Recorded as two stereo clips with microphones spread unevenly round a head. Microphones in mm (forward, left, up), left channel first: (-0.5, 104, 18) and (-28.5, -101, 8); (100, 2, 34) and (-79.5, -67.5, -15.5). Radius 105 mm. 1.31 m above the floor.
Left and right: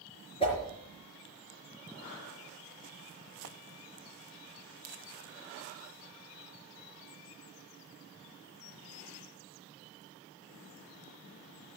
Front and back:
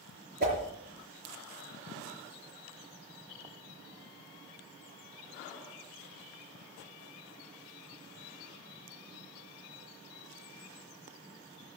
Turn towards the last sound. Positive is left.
turn(degrees=145)